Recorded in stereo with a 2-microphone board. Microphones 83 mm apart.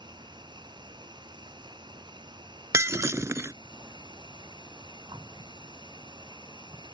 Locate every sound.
0.0 s an insect: 65° right (ahead or behind)
2.7 s breaking glass: 35° right (ahead or behind)